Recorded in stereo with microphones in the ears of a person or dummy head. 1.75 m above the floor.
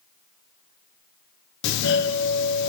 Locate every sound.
1.6 s a doorbell: 60° left (ahead or behind), 0.6 m